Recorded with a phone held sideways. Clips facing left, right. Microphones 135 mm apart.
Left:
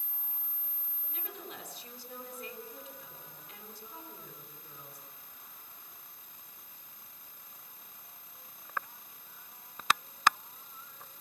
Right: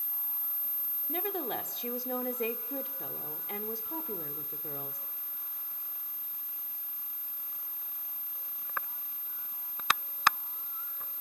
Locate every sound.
1.1 s a woman speaking: 65° right (ahead or behind), 3 m